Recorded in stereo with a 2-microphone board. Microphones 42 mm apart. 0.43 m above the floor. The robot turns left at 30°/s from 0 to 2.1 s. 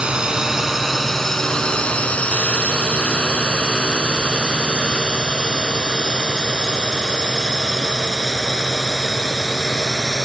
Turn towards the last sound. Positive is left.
turn(degrees=10)  # may be behind; listen again after turning